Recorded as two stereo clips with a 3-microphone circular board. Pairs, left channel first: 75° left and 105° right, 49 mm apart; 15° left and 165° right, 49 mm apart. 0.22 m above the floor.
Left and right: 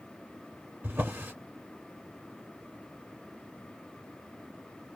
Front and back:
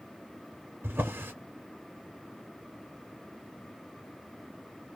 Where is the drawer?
140° right, 1.5 m.